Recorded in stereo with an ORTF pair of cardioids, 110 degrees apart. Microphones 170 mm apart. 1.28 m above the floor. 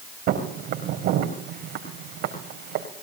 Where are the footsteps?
65° right, 4.5 m.